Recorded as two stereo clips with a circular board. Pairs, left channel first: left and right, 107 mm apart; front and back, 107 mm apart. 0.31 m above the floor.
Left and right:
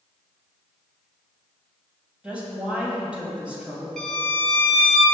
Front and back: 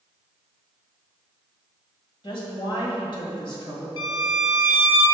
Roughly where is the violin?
Ahead.